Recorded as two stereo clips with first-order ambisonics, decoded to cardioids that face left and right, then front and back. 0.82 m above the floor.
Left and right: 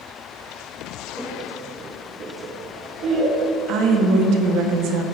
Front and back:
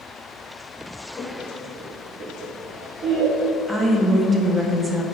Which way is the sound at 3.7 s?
100° right.